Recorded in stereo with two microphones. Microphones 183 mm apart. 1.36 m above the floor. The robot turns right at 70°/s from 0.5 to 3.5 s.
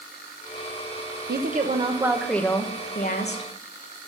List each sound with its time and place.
1.3 s a woman speaking: 70° right, 0.9 m; by 3.5 s 85° left, 0.9 m